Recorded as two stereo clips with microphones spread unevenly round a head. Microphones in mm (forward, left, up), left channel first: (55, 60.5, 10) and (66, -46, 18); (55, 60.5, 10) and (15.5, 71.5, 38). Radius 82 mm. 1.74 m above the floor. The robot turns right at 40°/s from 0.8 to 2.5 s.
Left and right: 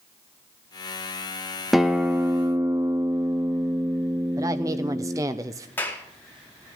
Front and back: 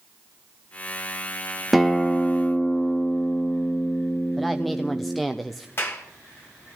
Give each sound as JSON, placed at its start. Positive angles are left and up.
{"t": 1.7, "sound": "a guitar", "azimuth_deg": -170, "distance_m": 0.7}
{"t": 4.4, "sound": "a woman speaking", "azimuth_deg": -140, "distance_m": 0.7}
{"t": 5.8, "sound": "a clap", "azimuth_deg": 25, "distance_m": 4.0}